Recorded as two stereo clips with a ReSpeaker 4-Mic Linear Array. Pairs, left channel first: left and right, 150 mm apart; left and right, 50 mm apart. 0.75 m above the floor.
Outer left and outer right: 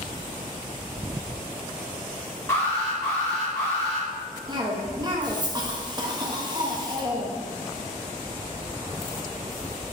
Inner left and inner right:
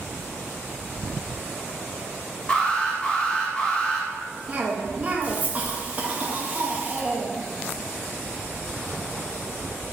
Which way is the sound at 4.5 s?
30° right (ahead or behind).